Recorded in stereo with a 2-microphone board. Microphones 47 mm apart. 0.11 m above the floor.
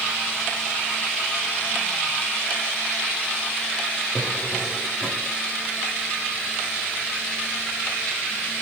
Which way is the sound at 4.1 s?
35° left (ahead or behind).